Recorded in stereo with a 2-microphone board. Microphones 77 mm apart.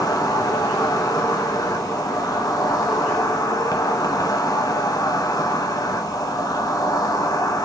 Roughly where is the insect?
Left.